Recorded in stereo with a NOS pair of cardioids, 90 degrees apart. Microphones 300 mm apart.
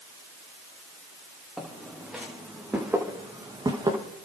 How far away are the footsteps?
About 6 m.